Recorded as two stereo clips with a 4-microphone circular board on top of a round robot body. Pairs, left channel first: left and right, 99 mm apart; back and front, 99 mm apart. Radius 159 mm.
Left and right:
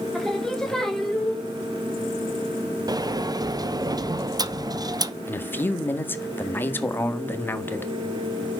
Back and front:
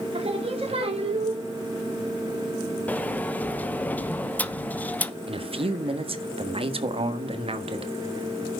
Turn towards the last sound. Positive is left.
turn(degrees=20)